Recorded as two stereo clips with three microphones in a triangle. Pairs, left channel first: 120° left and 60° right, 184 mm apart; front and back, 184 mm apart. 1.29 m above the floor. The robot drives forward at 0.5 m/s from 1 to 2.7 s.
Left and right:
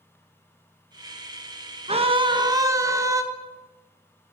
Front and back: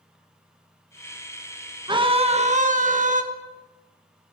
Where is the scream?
115° right, 0.9 m; by 3.2 s 130° right, 1.2 m.